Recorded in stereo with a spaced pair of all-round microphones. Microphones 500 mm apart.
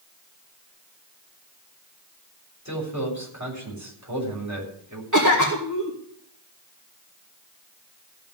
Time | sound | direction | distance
2.6 | a man speaking | 35° right (ahead or behind) | 7 m
5.1 | a cough | 35° right (ahead or behind) | 2.5 m